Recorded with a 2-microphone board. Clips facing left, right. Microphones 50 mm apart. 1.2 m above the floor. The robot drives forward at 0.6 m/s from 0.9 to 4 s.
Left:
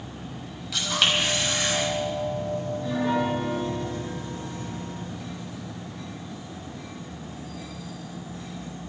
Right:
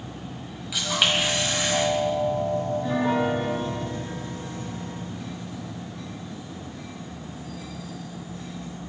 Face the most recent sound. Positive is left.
turn(degrees=-30)  # may be behind; listen again after turning